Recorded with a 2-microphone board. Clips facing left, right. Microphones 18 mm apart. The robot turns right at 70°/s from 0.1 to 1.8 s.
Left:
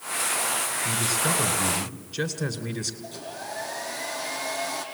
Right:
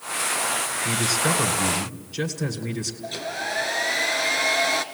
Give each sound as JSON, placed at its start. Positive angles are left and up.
{"t": 0.8, "sound": "a man speaking", "azimuth_deg": -70, "distance_m": 1.7}
{"t": 3.0, "sound": "a hair dryer", "side_deg": -65, "distance_m": 1.3}